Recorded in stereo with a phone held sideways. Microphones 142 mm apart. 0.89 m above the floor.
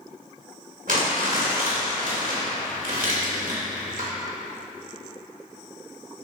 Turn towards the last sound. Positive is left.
turn(degrees=-75)  # may be behind; listen again after turning